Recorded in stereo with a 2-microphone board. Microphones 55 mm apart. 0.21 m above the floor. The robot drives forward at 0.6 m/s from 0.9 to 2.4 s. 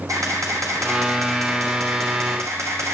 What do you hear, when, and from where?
0.1 s a camera shutter: 75° right (ahead or behind), 4 m; by 2.9 s 60° right (ahead or behind), 4.5 m